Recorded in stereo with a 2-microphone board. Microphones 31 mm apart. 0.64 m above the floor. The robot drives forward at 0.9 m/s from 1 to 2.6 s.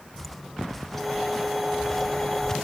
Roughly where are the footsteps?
Centre.